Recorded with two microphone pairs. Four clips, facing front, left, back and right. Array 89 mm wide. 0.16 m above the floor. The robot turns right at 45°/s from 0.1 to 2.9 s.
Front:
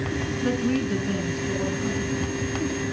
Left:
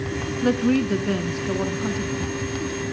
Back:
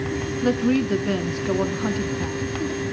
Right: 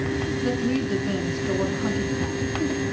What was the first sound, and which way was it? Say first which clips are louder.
A woman speaking: left 7 dB, back 5 dB; 110° left.